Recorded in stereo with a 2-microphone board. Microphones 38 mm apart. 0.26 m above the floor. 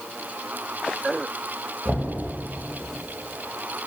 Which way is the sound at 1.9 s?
25° left (ahead or behind).